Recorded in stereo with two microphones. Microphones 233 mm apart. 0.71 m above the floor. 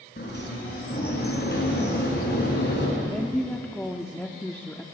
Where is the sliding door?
45° left (ahead or behind), 6.5 m.